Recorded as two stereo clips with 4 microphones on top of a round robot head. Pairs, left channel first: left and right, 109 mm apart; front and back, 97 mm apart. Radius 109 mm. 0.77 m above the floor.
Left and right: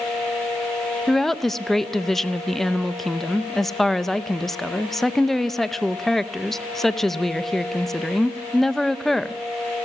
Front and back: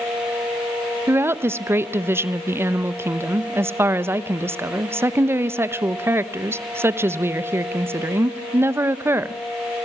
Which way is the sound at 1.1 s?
170° left.